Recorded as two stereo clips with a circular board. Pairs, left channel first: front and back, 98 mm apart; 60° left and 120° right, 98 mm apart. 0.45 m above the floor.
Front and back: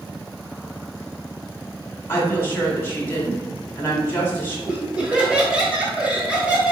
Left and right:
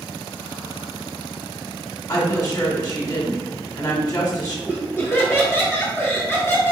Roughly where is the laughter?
Left.